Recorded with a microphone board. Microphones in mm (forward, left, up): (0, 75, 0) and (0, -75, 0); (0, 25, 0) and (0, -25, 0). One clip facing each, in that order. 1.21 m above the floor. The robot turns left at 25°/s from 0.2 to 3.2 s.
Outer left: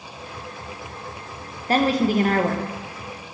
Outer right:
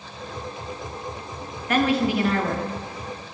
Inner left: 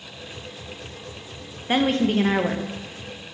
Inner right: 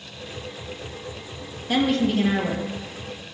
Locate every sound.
1.7 s a woman speaking: 30° left (ahead or behind), 1.2 m; by 2.6 s 50° left (ahead or behind), 1.2 m